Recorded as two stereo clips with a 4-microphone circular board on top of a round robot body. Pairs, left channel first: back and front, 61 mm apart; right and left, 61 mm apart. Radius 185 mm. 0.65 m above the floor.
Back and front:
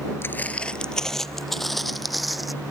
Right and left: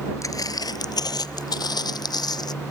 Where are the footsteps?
125° right; by 2.5 s 90° right.